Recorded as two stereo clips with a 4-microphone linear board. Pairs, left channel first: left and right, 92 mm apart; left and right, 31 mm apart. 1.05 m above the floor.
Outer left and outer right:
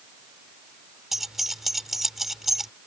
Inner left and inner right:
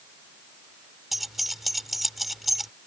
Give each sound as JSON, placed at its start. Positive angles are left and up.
{"t": 1.1, "sound": "keys jangling", "side_deg": -5}